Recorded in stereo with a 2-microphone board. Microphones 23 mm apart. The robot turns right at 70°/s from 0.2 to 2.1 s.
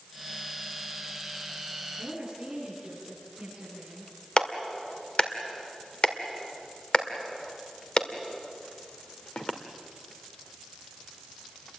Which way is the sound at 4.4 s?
40° left (ahead or behind).